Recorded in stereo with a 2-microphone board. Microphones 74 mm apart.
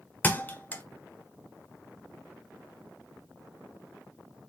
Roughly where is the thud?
Left.